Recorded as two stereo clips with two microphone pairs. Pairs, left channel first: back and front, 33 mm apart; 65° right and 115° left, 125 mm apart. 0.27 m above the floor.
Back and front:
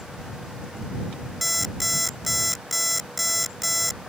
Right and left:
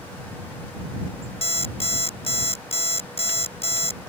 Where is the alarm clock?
95° right.